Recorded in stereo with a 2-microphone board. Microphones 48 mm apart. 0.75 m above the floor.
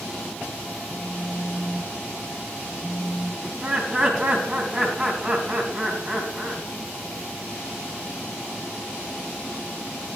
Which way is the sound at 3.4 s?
15° right (ahead or behind).